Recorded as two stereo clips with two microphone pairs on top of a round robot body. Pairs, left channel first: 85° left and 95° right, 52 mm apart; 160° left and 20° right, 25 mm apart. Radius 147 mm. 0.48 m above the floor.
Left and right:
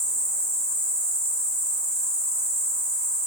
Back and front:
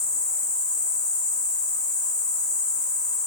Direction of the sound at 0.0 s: 70° right.